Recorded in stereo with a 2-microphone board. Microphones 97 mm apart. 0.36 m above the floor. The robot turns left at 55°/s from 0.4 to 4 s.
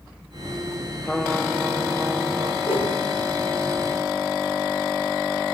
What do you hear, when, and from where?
1.0 s a trumpet: 15° left, 1.8 m; by 2.5 s 65° right, 1.8 m
2.6 s a whoosh: 80° left, 6.5 m; by 2.9 s 70° left (ahead or behind), 6.5 m